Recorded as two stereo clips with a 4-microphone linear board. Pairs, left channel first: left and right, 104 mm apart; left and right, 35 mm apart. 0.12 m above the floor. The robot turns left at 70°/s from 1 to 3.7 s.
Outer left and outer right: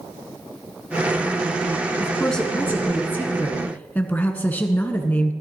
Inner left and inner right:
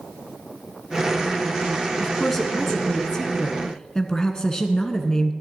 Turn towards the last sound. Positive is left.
turn(degrees=15)  # may be behind; listen again after turning